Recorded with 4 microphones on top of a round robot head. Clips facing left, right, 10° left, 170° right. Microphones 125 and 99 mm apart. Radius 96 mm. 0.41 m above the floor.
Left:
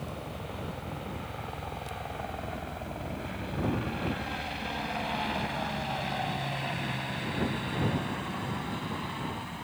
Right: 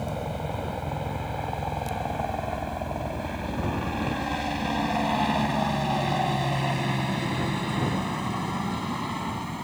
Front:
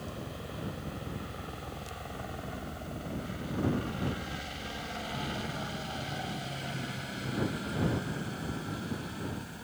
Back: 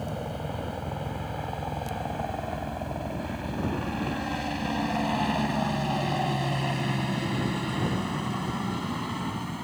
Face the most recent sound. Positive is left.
turn(degrees=-145)